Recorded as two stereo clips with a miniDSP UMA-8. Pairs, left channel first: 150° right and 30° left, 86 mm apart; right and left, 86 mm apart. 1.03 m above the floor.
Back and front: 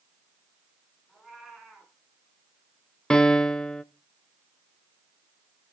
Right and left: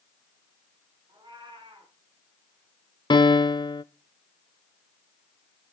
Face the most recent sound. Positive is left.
turn(degrees=-70)